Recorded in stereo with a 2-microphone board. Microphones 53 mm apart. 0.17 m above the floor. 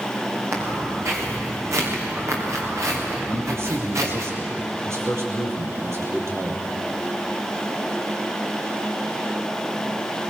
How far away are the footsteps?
About 7.5 m.